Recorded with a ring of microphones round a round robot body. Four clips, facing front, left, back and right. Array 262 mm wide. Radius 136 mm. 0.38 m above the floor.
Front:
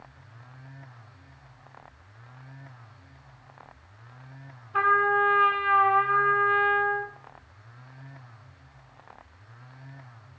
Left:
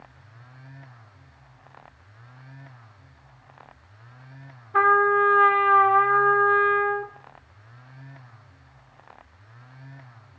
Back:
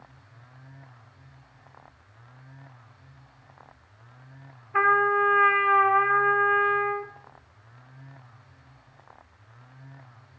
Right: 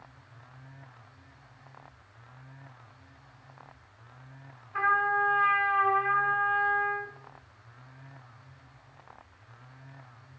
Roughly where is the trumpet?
Left.